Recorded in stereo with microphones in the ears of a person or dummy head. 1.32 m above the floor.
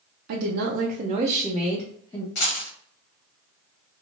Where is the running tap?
No running tap in this recording.